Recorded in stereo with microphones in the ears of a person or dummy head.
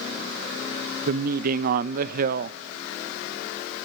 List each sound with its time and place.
1.1 s a woman speaking: 55° right (ahead or behind), 0.6 m